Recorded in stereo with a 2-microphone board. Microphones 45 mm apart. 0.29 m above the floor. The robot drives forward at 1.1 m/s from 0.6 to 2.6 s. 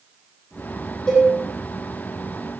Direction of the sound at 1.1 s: 10° left (ahead or behind).